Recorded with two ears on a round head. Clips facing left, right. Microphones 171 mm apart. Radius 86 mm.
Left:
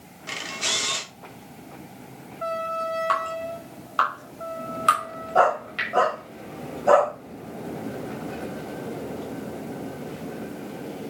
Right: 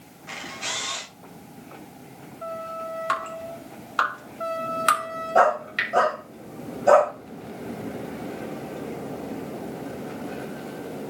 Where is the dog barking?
25° right (ahead or behind), 7 m.